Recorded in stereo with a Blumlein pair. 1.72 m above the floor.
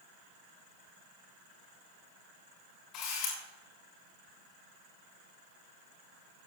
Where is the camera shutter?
35° left, 5.5 m.